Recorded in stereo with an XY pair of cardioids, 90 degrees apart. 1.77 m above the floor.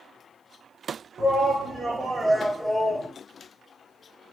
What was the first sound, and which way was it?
A shout, 40° right.